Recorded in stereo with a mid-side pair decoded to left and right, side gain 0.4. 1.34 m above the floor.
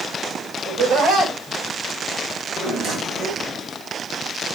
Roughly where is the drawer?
Ahead right.